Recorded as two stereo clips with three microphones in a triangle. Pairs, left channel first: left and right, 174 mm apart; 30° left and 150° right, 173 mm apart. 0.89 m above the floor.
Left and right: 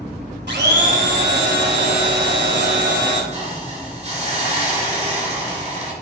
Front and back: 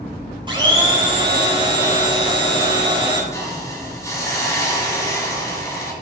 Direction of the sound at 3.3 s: 40° right.